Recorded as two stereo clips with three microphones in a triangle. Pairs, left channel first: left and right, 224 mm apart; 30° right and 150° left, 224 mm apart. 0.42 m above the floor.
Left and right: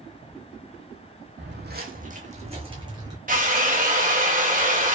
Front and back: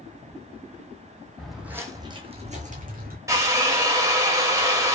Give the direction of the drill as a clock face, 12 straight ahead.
5 o'clock.